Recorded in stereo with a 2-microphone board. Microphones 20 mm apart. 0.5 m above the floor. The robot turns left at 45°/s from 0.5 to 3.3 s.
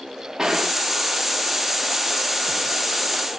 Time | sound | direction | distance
0.4 | a gunshot | 35° right (ahead or behind) | 0.7 m